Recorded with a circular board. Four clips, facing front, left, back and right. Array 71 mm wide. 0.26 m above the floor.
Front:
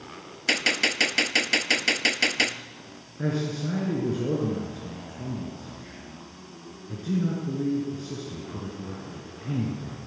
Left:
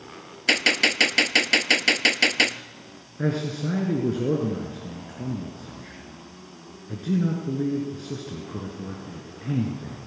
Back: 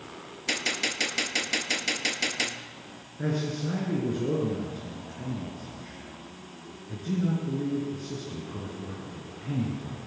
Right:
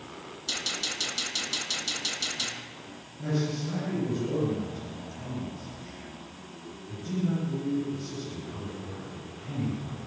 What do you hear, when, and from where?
0.5 s a gunshot: 75° left, 0.9 m
3.2 s a man speaking: 85° left, 4.5 m